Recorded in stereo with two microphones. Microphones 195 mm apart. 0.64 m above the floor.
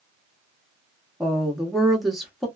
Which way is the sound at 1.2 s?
Centre (ahead or behind).